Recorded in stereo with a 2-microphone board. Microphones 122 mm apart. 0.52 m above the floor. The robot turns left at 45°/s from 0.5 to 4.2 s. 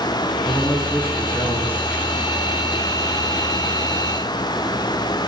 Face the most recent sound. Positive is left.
turn(degrees=-155)